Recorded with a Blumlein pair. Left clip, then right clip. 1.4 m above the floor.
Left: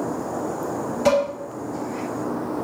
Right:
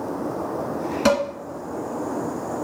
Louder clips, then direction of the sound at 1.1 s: Left 1 dB; 65° right.